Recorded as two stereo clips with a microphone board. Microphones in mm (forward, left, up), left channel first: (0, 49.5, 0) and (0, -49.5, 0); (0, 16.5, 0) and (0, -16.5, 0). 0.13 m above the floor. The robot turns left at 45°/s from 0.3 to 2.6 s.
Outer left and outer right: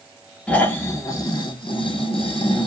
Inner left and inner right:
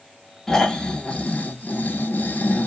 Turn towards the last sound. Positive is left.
turn(degrees=70)